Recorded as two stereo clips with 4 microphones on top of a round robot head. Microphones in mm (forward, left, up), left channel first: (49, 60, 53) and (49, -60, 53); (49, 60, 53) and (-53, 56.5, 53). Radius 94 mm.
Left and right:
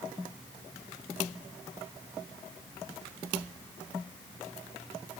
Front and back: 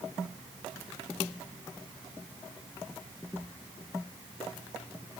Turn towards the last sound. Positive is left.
No sound to turn to.